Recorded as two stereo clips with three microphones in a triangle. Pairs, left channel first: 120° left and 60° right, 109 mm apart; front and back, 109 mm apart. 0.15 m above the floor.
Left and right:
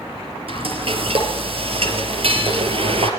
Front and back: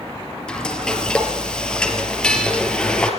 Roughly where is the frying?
Right.